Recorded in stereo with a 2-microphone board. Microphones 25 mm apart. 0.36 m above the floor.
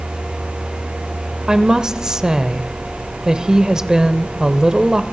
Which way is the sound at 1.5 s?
30° right (ahead or behind).